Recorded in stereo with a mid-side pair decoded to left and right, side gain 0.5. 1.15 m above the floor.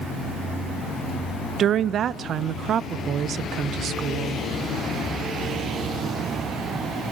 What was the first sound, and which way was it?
A woman speaking, 55° right.